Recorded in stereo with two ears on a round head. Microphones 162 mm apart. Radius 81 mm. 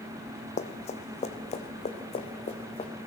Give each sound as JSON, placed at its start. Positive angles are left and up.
{"t": 0.6, "sound": "running footsteps", "side_deg": 40, "distance_m": 1.9}